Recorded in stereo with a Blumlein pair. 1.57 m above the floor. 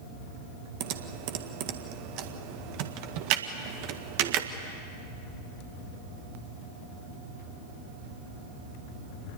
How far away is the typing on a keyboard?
About 1.6 m.